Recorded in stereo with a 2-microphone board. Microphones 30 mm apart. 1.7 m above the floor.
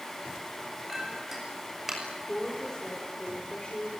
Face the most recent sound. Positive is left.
turn(degrees=30)  # may be behind; listen again after turning